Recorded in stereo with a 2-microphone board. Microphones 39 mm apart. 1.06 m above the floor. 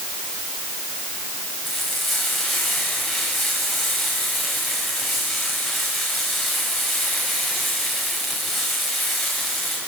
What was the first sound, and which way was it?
Frying, 5° left (ahead or behind).